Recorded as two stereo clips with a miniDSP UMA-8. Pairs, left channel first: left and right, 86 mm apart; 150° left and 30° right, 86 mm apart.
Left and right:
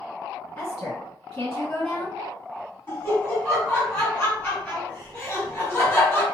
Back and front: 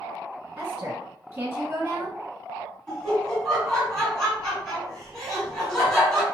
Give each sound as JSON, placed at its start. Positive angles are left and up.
{"t": 0.6, "sound": "a woman speaking", "azimuth_deg": 30, "distance_m": 1.8}
{"t": 2.9, "sound": "laughter", "azimuth_deg": 75, "distance_m": 1.7}